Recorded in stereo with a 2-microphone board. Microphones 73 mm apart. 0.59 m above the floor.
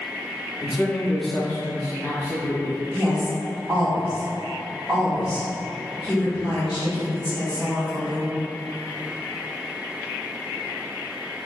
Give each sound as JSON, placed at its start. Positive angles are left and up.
{"t": 0.6, "sound": "a man speaking", "side_deg": -5, "distance_m": 0.7}
{"t": 2.9, "sound": "a woman speaking", "side_deg": -5, "distance_m": 1.6}